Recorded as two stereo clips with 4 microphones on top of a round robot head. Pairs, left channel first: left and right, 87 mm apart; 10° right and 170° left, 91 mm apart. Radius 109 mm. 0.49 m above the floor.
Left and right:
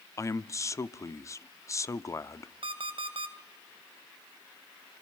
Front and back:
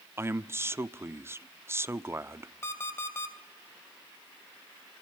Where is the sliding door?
I don't hear a sliding door.